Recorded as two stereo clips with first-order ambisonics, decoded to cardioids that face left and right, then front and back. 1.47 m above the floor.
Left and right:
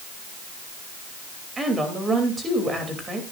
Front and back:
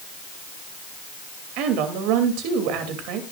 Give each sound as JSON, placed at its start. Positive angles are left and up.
{"t": 1.6, "sound": "a woman speaking", "azimuth_deg": -165, "distance_m": 2.5}